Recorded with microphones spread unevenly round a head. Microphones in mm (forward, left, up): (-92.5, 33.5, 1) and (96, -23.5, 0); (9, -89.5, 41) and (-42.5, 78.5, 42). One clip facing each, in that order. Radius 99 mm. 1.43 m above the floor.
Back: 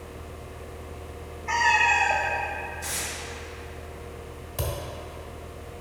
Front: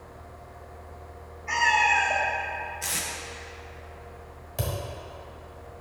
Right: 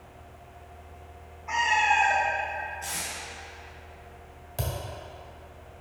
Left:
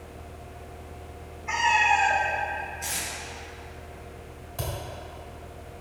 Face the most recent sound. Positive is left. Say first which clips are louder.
# even, even
turn(degrees=-110)